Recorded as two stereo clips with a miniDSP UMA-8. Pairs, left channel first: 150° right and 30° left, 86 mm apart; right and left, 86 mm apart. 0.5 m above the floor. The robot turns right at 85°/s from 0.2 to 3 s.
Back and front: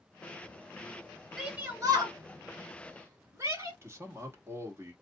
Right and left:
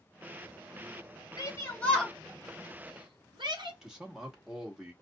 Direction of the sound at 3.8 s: 10° left.